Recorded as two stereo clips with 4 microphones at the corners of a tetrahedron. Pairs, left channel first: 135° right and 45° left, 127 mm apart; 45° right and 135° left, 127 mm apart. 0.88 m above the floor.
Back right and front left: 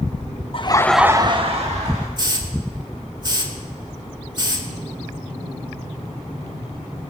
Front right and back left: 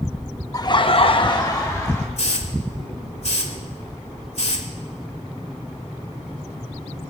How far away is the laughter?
About 0.9 m.